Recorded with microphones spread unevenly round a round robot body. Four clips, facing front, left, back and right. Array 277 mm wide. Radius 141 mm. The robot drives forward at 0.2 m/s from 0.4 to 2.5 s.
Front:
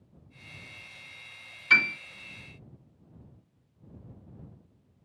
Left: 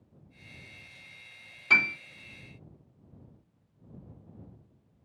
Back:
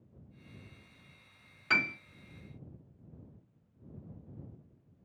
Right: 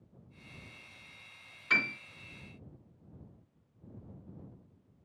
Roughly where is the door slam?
I don't hear a door slam.